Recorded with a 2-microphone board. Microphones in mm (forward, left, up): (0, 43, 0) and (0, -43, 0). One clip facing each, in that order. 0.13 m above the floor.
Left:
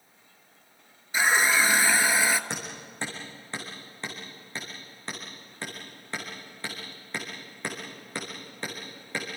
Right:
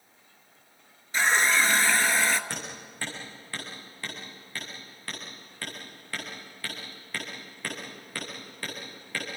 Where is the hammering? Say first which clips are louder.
Left 1 dB; 20° left (ahead or behind), 7 m.